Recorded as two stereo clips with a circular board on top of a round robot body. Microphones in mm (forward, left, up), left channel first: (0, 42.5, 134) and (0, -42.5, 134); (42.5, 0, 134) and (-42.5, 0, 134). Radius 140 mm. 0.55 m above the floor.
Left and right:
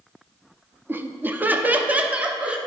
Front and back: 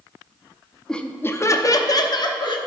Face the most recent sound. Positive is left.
turn(degrees=-15)